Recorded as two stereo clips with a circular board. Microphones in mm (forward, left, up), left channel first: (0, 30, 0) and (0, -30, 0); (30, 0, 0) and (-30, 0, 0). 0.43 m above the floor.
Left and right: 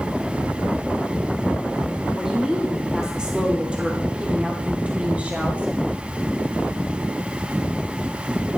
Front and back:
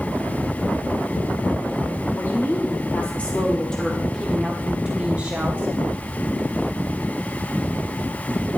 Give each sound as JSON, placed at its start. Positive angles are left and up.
{"t": 2.1, "sound": "a woman speaking", "azimuth_deg": -15, "distance_m": 1.7}